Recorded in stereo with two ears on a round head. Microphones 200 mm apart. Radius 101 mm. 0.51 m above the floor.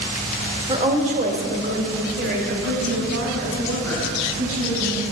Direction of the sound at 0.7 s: 20° right (ahead or behind).